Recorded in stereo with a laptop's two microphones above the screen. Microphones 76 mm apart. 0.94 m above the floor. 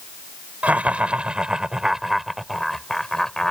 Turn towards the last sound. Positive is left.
turn(degrees=10)  # may be behind; listen again after turning